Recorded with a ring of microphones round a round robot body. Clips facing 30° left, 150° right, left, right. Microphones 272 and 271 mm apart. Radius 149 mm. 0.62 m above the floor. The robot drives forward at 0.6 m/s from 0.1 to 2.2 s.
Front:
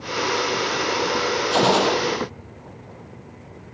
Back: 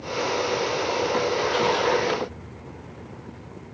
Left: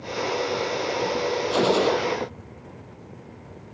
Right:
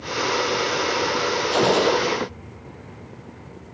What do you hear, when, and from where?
1.5 s a gunshot: 5° left